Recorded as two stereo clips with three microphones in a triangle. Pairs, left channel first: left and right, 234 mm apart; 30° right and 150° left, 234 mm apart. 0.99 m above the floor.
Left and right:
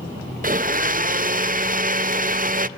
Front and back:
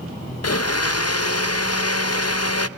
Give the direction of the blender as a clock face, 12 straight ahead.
1 o'clock.